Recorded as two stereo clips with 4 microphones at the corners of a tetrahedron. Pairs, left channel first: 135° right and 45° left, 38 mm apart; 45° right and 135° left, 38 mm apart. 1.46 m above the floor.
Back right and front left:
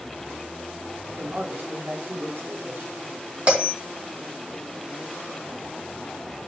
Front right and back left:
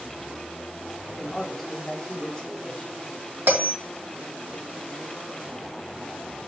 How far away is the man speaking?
About 3.5 m.